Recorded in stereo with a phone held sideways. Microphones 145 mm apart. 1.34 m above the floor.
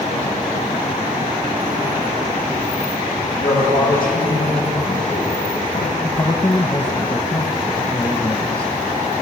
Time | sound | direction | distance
3.4 | a man speaking | 80° left | 8 m
6.0 | a man speaking | 25° left (ahead or behind) | 1.3 m